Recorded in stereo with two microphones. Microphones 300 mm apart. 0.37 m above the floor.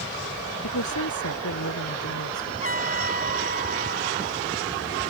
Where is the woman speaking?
75° left (ahead or behind).